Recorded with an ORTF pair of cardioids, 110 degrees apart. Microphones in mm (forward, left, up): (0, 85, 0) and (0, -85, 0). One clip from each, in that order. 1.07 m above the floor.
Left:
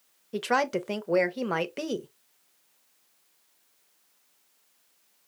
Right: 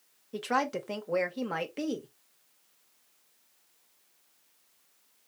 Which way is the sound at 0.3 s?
25° left.